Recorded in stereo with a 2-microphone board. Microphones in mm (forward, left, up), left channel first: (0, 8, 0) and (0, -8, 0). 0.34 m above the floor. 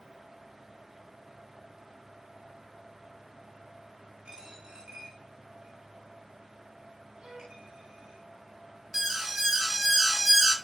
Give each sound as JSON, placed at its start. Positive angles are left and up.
{"t": 4.2, "sound": "a dropped coin", "side_deg": -90, "distance_m": 7.5}
{"t": 7.2, "sound": "a violin", "side_deg": -65, "distance_m": 3.5}
{"t": 8.9, "sound": "an alarm", "side_deg": -25, "distance_m": 3.0}